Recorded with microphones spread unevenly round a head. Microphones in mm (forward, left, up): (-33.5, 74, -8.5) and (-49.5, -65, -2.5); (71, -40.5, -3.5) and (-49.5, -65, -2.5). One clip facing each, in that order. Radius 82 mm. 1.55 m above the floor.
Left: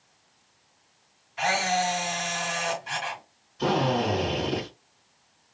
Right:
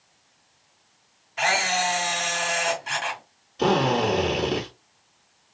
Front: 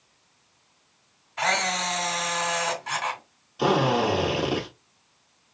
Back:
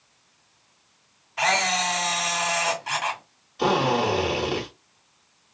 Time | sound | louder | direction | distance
1.4 | a camera shutter | even, back 2 dB | 90° right | 2.5 m
3.6 | a drill | right 3 dB, even | 70° right | 3 m